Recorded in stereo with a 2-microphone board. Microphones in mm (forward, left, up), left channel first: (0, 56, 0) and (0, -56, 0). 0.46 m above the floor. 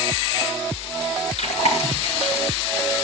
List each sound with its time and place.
1.4 s chewing: 75° left (ahead or behind), 8.5 m